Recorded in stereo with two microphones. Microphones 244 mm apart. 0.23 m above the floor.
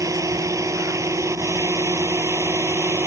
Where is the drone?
15° right (ahead or behind); by 3.1 s 10° right (ahead or behind).